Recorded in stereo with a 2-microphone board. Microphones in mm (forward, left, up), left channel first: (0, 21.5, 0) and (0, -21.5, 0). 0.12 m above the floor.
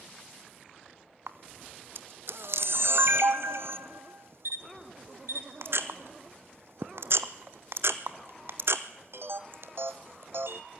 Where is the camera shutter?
75° right (ahead or behind), 1.3 m.